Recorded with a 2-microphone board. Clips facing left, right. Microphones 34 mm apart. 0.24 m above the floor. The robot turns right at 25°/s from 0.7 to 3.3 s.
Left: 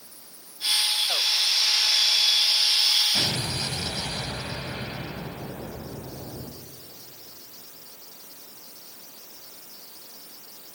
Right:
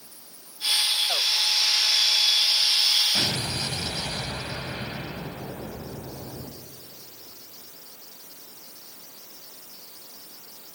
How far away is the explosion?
About 1.2 m.